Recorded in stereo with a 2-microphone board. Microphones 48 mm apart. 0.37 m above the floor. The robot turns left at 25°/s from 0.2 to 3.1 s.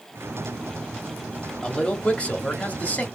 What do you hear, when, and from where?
1.6 s a man speaking: 20° left (ahead or behind), 0.8 m; by 3.0 s 30° left (ahead or behind), 0.8 m